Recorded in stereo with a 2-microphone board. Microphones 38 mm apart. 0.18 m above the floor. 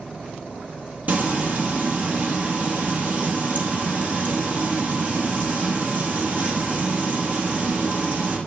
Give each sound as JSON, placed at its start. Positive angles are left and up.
{"t": 1.1, "sound": "frying", "side_deg": -45, "distance_m": 1.4}